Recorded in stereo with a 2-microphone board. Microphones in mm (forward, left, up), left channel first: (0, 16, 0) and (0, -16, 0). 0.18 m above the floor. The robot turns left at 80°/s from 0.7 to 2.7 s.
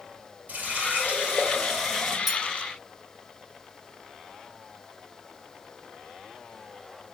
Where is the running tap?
90° right, 2.5 m; by 2.2 s 150° left, 2.5 m.